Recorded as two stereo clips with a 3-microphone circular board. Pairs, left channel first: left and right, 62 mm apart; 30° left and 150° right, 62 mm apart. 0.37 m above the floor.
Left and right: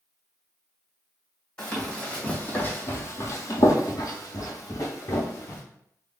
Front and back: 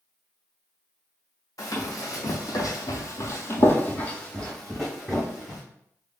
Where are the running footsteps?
10° left, 1.2 m; by 5.6 s 130° left, 1.4 m.